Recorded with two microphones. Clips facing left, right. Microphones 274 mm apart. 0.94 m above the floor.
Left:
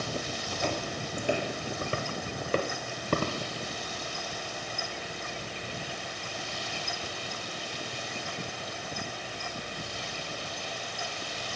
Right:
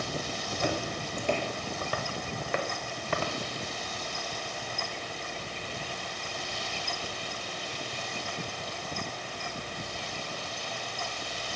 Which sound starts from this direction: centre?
Footsteps, at 0.5 s.